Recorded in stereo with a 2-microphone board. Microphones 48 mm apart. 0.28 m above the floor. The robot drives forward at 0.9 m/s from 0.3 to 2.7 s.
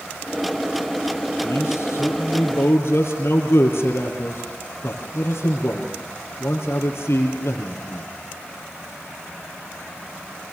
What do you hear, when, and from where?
1.4 s a man speaking: 70° left (ahead or behind), 6 m; by 8.1 s 60° left (ahead or behind), 6.5 m